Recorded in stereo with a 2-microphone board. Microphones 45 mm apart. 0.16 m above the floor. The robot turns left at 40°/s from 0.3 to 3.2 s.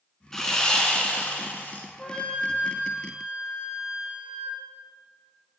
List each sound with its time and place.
0.3 s sawing: 160° left, 1.3 m; by 1.9 s 100° left, 1.3 m
2.0 s a flute: 170° left, 2.5 m; by 4.6 s 125° left, 2.5 m